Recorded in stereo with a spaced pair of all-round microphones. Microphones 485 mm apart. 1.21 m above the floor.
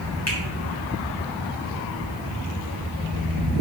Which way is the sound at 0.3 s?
30° left (ahead or behind).